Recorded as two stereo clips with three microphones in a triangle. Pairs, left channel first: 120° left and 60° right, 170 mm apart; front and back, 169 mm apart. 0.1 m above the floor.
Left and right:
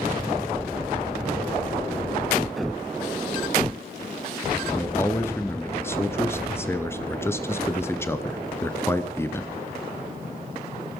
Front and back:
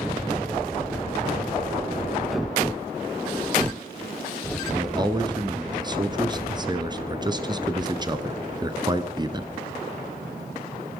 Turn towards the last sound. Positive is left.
turn(degrees=175)